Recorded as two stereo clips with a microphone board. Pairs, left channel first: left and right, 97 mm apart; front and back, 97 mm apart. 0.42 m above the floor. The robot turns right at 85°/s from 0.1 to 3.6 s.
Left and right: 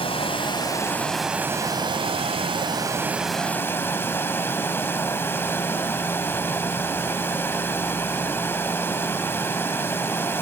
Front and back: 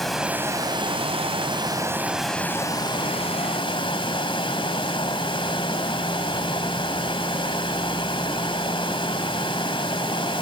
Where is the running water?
90° left, 1.5 m; by 10.4 s 25° left, 1.5 m.